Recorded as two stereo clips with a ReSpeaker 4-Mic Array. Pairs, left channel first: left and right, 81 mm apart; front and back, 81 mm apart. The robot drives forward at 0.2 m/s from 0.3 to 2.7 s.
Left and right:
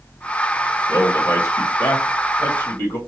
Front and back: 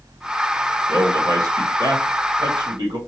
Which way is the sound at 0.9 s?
145° left.